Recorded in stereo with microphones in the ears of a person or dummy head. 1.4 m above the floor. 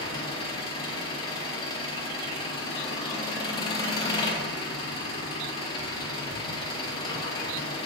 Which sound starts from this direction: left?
An engine running, at 0.0 s.